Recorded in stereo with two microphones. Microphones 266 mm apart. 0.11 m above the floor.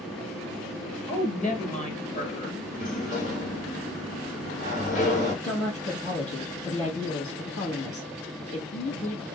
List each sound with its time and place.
1.1 s a woman speaking: 30° left (ahead or behind), 1.3 m
2.7 s a sliding door: 30° left (ahead or behind), 1.4 m
5.4 s a woman speaking: 60° left (ahead or behind), 2.5 m